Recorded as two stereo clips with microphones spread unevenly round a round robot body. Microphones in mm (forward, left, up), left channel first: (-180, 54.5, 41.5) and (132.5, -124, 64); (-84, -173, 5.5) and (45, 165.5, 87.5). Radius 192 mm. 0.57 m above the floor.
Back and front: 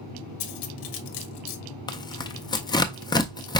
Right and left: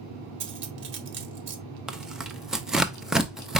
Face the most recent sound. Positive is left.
turn(degrees=-165)